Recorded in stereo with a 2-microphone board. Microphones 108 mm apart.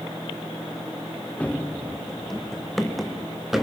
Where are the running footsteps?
10° left (ahead or behind), 0.9 m; by 3.6 s centre (ahead or behind), 2.5 m.